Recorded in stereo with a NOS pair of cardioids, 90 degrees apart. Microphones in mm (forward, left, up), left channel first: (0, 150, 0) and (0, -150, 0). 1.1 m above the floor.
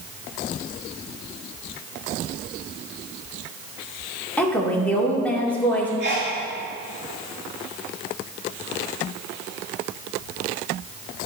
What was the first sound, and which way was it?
A woman speaking, 5° left.